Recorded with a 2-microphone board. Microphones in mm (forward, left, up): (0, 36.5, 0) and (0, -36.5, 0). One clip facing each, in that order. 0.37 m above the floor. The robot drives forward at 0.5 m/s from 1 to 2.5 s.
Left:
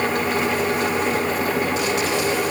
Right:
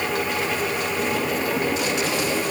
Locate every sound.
Only background noise.